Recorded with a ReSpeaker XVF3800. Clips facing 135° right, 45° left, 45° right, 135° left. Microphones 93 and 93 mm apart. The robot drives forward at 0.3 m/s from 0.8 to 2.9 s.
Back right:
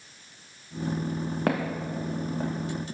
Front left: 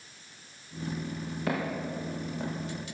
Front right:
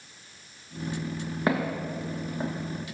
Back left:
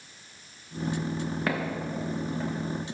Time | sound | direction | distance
1.5 | footsteps | 110° right | 2 m